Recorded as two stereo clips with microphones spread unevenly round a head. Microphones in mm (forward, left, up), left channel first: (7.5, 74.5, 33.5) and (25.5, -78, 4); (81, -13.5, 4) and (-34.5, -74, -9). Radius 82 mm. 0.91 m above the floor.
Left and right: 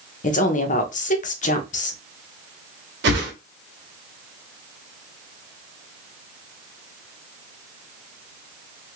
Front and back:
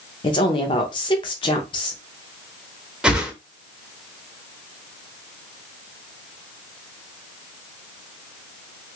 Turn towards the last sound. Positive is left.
turn(degrees=-65)